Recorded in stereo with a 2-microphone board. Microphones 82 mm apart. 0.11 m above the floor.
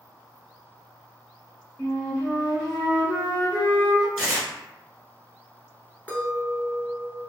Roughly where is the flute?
Left.